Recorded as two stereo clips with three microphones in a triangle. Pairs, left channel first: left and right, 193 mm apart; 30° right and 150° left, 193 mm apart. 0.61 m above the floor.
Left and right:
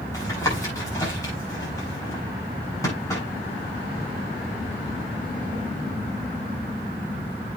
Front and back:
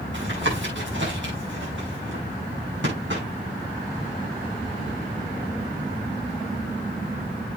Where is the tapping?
165° left, 7 m.